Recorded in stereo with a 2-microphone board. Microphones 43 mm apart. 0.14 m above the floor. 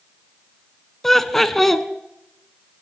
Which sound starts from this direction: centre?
Laughter, at 1.0 s.